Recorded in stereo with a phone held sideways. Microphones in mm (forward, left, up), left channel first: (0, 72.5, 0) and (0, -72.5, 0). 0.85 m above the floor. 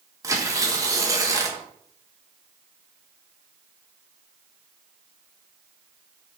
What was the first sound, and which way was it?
Tearing paper, 20° right (ahead or behind).